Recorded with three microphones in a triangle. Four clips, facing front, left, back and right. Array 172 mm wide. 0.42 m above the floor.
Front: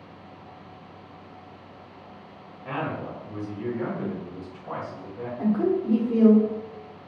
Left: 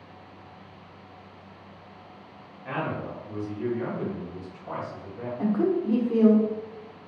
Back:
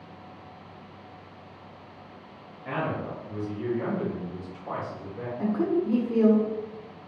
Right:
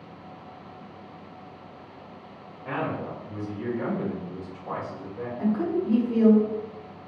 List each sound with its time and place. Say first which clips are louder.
2.6 s a man speaking: right 1 dB, even; 70° right, 1.5 m; by 5.3 s 130° right, 1.8 m
5.4 s a woman speaking: left 1 dB, front 2 dB; 95° left, 0.9 m